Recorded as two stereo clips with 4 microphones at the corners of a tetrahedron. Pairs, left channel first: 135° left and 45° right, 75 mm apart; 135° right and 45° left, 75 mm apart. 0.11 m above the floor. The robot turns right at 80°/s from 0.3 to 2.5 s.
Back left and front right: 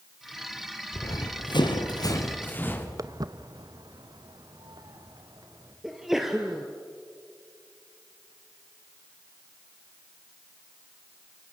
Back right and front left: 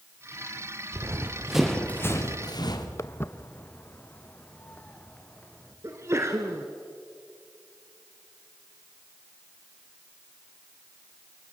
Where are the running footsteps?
85° left, 2.5 m; by 2.9 s 165° right, 3.5 m.